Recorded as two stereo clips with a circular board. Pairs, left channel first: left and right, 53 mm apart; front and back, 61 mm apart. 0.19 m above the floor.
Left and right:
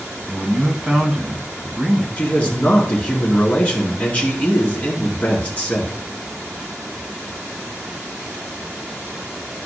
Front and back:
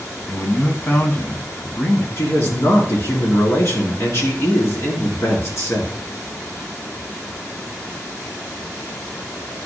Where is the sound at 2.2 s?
30° left, 2.5 m.